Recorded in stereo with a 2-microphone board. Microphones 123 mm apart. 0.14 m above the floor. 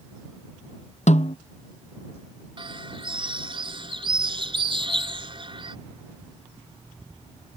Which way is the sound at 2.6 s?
45° right (ahead or behind).